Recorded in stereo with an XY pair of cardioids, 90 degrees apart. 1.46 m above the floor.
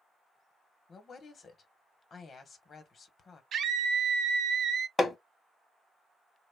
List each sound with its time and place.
0.9 s a woman speaking: 50° left, 1.0 m
3.5 s a scream: 70° right, 0.5 m
5.0 s hammering: 35° left, 0.8 m